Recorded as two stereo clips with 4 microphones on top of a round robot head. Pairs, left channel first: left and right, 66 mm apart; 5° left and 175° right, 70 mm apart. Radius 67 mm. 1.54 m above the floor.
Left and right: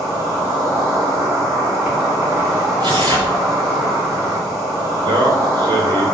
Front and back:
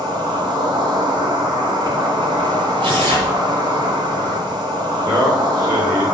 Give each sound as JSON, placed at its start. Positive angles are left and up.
{"t": 0.0, "sound": "an insect", "azimuth_deg": -165, "distance_m": 2.5}
{"t": 2.8, "sound": "tearing paper", "azimuth_deg": -145, "distance_m": 2.5}
{"t": 5.0, "sound": "a man speaking", "azimuth_deg": -115, "distance_m": 2.5}